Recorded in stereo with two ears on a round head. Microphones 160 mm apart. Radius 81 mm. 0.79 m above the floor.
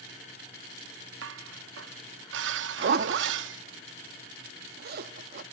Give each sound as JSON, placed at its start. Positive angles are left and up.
{"t": 1.2, "sound": "dishes clattering", "side_deg": -65, "distance_m": 0.6}
{"t": 2.8, "sound": "a zipper", "side_deg": -55, "distance_m": 0.7}